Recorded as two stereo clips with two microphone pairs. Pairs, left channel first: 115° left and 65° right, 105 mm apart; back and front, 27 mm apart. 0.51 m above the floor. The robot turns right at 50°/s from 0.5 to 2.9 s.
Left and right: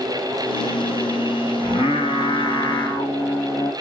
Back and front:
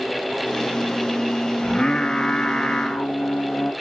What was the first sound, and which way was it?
Singing, 115° left.